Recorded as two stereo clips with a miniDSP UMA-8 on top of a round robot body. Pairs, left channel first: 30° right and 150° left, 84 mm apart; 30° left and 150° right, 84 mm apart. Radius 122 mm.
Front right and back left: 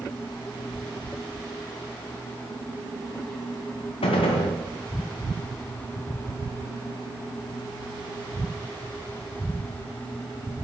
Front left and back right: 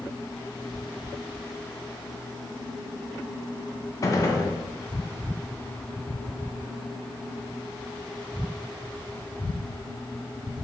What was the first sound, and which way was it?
A gunshot, 25° right.